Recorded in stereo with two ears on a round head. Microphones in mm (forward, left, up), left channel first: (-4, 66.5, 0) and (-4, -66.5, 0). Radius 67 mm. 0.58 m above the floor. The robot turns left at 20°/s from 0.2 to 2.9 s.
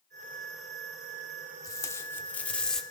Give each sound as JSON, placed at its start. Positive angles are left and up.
{"t": 1.6, "sound": "tape being pulled", "side_deg": 25, "distance_m": 1.2}